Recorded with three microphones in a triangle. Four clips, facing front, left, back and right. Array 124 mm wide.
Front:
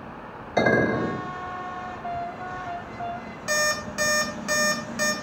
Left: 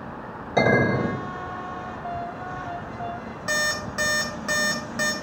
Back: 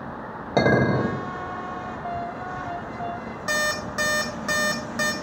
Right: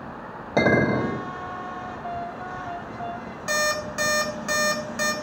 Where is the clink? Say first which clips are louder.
Even, back 1 dB; 155° right, 0.9 m.